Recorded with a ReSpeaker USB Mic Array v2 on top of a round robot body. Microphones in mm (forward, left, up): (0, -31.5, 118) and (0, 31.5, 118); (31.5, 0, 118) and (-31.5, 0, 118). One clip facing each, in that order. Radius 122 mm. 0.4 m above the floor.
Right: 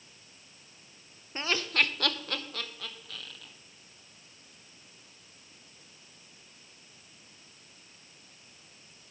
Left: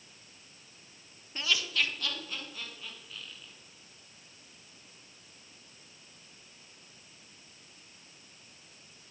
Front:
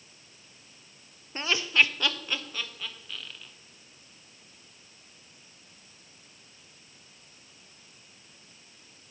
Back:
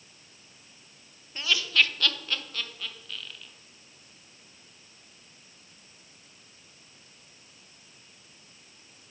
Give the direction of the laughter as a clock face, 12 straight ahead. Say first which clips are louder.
Right 3 dB, front 1 dB; 1 o'clock.